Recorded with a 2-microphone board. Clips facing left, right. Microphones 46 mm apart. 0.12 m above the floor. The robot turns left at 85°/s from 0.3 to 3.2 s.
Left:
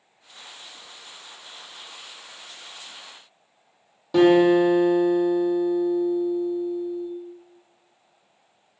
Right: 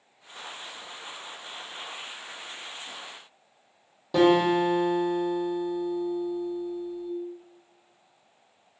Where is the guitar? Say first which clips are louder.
Left 5 dB; centre (ahead or behind), 1.3 m.